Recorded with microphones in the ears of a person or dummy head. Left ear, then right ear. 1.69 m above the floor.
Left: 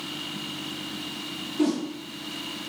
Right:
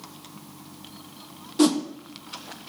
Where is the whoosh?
45° right (ahead or behind), 0.7 m.